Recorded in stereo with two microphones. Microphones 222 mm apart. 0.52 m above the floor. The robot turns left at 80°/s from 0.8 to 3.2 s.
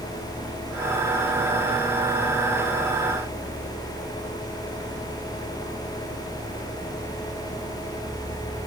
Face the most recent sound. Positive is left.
No sound to turn to.